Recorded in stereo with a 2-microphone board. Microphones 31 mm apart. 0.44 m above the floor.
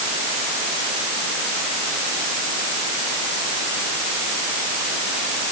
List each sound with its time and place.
Only background noise.